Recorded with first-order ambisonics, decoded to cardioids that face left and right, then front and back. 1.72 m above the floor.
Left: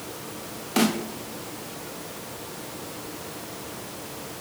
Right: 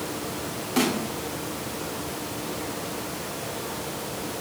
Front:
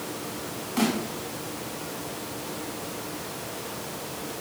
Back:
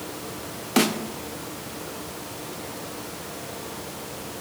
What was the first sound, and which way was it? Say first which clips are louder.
A snare drum: left 1 dB, back 5 dB; 165° left.